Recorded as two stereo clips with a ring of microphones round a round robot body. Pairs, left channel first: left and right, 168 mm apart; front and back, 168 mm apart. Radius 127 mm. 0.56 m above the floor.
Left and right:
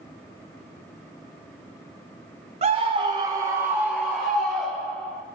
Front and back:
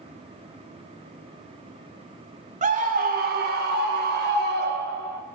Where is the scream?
140° right, 1.4 m; by 5.2 s 175° left, 3 m.